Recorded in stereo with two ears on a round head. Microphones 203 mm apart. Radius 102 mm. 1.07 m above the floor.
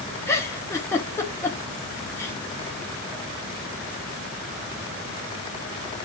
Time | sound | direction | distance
0.3 | a giggle | 10° left (ahead or behind) | 0.7 m